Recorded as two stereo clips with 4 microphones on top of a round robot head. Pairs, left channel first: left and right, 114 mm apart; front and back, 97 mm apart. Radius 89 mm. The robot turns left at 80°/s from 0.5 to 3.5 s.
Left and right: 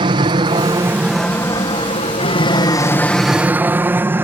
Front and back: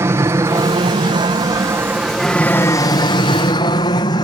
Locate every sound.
0.0 s an aircraft: 120° right; by 4.2 s 25° right